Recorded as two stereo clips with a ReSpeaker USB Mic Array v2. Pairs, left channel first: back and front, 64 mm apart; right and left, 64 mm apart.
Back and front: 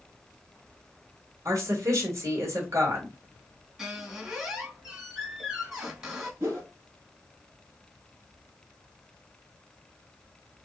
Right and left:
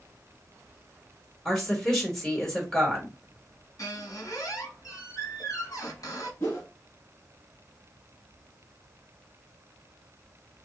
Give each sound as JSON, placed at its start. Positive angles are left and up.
{"t": 1.4, "sound": "a woman speaking", "azimuth_deg": -10, "distance_m": 1.4}
{"t": 3.8, "sound": "a squeak", "azimuth_deg": -80, "distance_m": 1.4}
{"t": 6.4, "sound": "a whoosh", "azimuth_deg": -45, "distance_m": 1.4}